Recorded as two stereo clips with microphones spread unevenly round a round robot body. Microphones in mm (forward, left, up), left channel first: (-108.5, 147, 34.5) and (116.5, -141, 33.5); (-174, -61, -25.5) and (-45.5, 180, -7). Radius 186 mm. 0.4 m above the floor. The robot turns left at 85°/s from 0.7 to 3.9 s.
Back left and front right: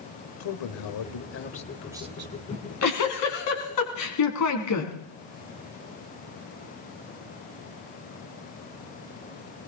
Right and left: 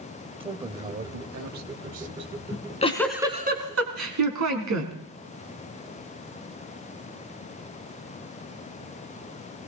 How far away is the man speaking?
About 1.6 m.